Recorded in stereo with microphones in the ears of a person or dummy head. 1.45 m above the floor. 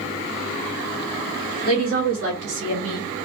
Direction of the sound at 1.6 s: 80° right.